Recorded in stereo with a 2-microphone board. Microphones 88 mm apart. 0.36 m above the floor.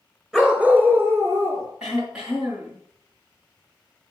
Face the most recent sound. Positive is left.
turn(degrees=-10)  # may be behind; listen again after turning